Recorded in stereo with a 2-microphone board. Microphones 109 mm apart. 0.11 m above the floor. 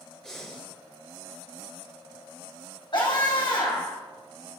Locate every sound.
0.2 s breathing: 5° left (ahead or behind), 1.9 m
2.9 s a scream: 45° left (ahead or behind), 4.5 m